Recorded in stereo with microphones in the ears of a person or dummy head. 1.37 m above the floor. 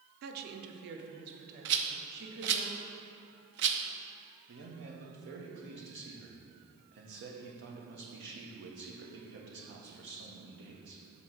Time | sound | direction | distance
0.2 | a woman speaking | 55° right (ahead or behind) | 0.8 m
1.6 | a rattle | 55° right (ahead or behind) | 0.6 m
4.5 | a man speaking | 55° right (ahead or behind) | 1.4 m